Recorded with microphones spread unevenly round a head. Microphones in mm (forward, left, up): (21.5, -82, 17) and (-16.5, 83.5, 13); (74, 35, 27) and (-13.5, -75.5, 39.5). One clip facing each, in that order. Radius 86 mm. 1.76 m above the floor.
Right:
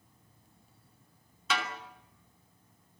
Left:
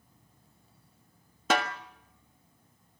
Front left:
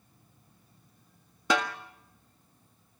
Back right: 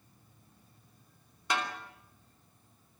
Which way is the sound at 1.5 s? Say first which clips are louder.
Left 6 dB, front left 6 dB; 70° left.